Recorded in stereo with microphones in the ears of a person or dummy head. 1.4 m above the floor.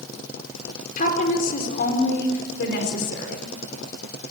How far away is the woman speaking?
About 4.5 m.